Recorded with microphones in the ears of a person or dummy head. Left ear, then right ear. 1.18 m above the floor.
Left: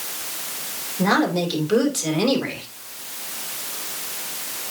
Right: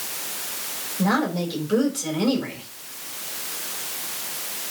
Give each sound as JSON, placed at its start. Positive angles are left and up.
{"t": 1.0, "sound": "a woman speaking", "side_deg": 25, "distance_m": 3.0}